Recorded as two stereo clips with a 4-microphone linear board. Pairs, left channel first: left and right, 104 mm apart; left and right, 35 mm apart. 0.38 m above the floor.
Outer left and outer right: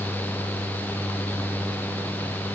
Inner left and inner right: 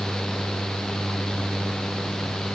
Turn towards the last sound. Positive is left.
No sound to turn to.